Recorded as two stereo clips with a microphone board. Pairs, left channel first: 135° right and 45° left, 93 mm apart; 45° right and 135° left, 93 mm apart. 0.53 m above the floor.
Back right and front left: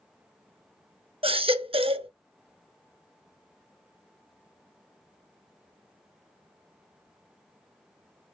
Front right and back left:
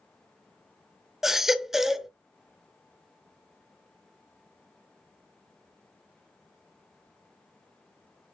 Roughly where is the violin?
No violin in this recording.